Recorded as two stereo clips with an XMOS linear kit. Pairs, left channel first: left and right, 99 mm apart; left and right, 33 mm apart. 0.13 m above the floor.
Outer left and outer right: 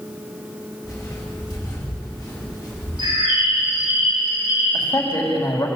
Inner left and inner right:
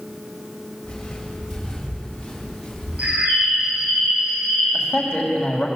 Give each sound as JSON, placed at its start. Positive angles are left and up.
{"t": 0.8, "sound": "footsteps", "side_deg": 30, "distance_m": 8.5}
{"t": 3.0, "sound": "a bird", "side_deg": -45, "distance_m": 8.0}
{"t": 4.7, "sound": "a man speaking", "side_deg": 40, "distance_m": 6.5}